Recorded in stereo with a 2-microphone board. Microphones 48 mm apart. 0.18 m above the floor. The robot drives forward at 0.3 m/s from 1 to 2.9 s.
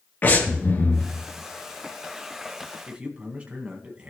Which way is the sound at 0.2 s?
45° left (ahead or behind).